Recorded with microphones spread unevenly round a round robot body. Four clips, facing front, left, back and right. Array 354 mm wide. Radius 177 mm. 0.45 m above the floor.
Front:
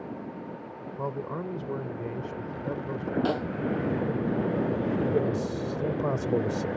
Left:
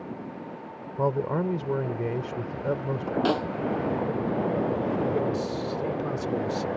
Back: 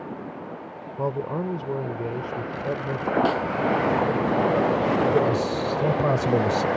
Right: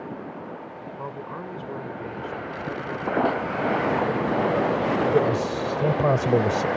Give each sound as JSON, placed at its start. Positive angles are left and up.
{"t": 1.0, "sound": "a man speaking", "azimuth_deg": 125}
{"t": 3.2, "sound": "a snare drum", "azimuth_deg": 90}
{"t": 5.1, "sound": "a man speaking", "azimuth_deg": -120}